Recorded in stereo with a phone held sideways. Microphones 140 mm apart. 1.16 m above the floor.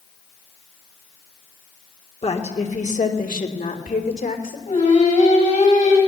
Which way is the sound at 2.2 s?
45° left (ahead or behind).